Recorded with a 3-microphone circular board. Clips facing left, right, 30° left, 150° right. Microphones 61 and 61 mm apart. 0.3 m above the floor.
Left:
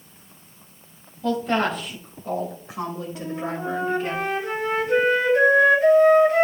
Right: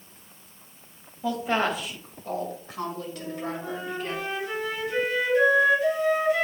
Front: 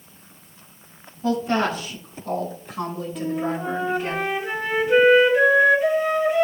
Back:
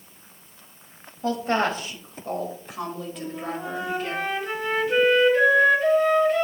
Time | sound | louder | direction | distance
1.2 | a woman speaking | left 3 dB, front 2 dB | 165° right | 1.7 m
3.1 | a flute | left 4 dB, front 10 dB | 110° left | 1.0 m